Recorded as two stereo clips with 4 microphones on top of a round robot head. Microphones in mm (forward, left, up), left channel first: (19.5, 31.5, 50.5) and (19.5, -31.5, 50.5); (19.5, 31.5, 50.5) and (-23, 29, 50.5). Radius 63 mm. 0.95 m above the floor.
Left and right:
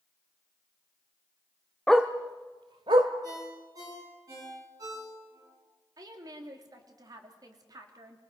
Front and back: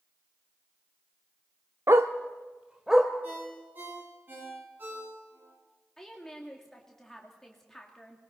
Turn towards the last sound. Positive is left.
turn(degrees=-80)